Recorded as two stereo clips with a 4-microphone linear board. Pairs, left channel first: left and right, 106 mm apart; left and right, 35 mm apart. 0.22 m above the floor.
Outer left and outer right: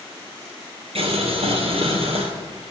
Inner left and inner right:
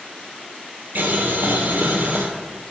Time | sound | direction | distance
0.9 | boiling | 65° right (ahead or behind) | 2 m